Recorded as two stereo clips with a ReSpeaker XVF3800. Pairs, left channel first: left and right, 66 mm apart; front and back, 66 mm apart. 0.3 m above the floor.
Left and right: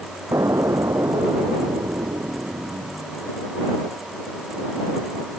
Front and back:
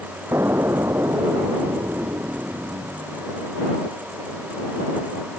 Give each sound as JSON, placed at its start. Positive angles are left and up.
{"t": 0.3, "sound": "an explosion", "azimuth_deg": -130}